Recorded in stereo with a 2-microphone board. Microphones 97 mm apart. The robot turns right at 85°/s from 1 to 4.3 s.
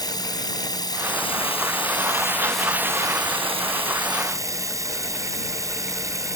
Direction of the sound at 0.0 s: 45° left.